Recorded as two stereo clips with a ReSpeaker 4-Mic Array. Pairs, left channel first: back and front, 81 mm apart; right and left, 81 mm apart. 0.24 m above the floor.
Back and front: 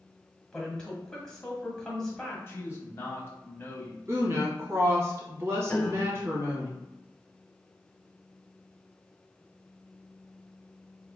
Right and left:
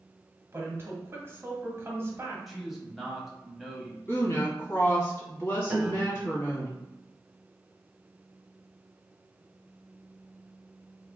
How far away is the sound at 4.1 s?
About 1.6 m.